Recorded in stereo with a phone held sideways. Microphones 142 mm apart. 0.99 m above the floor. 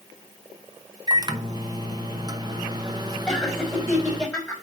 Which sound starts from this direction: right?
A microwave, at 1.1 s.